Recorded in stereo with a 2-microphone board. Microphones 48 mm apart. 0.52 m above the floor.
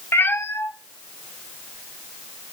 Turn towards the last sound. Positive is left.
turn(degrees=5)  # may be behind; listen again after turning